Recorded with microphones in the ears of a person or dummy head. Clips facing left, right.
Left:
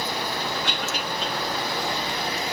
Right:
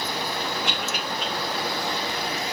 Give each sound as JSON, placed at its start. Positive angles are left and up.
{"t": 0.6, "sound": "a cough", "side_deg": -55, "distance_m": 3.0}